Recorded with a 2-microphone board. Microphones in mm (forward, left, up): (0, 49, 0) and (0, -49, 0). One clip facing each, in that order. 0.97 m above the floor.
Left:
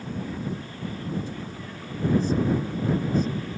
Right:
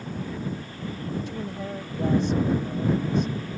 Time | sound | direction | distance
1.3 | a woman speaking | 70° right (ahead or behind) | ?